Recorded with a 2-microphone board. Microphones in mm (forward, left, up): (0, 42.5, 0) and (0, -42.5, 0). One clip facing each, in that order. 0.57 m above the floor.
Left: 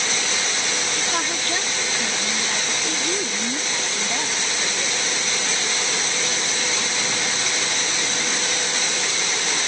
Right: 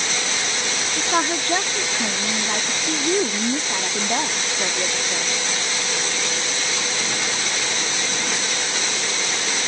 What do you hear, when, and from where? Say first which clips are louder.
1.0 s a woman speaking: right 4 dB; 30° right (ahead or behind)